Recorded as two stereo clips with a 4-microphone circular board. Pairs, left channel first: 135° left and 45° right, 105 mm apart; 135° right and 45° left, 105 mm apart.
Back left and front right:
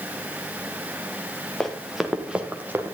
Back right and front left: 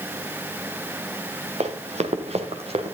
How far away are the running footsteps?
About 1.7 m.